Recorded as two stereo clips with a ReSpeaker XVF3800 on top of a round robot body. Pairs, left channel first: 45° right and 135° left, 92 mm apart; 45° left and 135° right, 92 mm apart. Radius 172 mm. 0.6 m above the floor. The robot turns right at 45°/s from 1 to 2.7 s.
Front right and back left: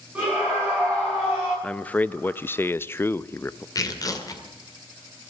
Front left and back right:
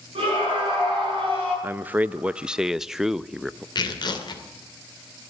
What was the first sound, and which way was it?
A scream, 150° right.